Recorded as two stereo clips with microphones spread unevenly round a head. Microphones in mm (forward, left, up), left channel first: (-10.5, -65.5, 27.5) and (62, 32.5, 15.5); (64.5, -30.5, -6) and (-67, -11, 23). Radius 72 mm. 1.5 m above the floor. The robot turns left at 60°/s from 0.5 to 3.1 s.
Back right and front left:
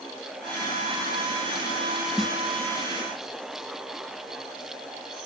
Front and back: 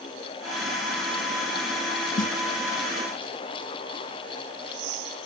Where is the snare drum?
35° right; by 2.3 s 45° right.